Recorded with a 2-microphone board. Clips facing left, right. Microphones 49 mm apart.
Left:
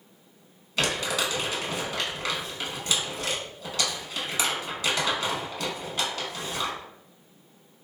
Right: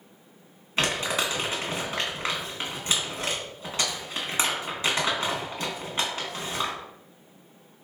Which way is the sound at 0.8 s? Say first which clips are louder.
Right 1 dB; 25° right (ahead or behind).